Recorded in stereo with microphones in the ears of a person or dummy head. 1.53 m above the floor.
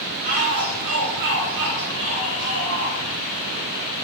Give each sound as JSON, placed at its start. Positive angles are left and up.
{"t": 0.2, "sound": "a shout", "side_deg": -45, "distance_m": 3.0}